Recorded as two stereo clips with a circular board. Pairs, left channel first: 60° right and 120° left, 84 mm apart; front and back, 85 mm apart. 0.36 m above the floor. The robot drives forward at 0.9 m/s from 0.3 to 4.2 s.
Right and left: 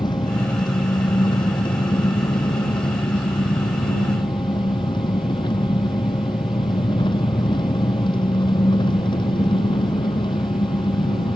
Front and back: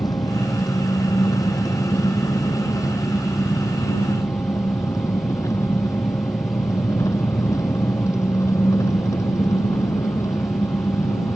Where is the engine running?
40° right; by 11.4 s 50° right.